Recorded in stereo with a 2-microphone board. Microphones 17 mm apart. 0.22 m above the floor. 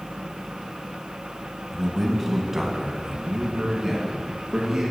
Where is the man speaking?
Centre (ahead or behind), 1.0 m; by 4.9 s 25° right (ahead or behind), 2.5 m.